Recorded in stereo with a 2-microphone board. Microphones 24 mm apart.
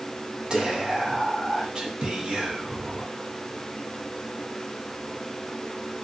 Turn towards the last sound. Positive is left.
turn(degrees=-35)  # may be behind; listen again after turning